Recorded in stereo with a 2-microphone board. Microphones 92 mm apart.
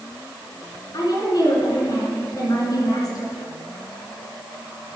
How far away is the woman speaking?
About 3 m.